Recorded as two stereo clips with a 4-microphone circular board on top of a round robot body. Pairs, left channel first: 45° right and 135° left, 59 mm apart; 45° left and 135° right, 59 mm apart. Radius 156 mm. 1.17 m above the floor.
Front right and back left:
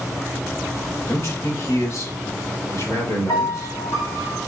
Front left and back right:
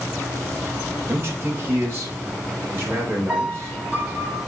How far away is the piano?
About 3.5 m.